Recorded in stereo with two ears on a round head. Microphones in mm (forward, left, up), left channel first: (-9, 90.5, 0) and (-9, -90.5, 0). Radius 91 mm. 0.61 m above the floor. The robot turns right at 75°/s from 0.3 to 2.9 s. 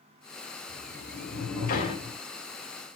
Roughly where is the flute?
No flute in this recording.